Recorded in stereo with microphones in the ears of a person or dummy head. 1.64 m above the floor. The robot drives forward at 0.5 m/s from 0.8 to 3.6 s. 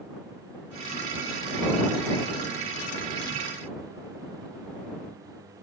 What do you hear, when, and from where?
Only background noise.